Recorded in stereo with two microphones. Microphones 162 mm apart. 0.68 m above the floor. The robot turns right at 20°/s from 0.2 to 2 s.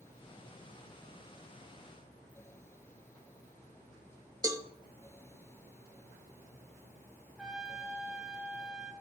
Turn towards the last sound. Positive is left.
turn(degrees=-5)  # may be behind; listen again after turning